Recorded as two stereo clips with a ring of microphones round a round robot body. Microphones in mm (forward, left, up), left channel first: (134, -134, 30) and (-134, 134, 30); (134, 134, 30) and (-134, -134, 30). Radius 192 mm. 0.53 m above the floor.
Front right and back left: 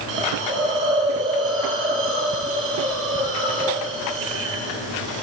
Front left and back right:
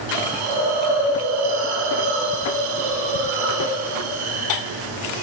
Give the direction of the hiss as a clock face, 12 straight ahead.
5 o'clock.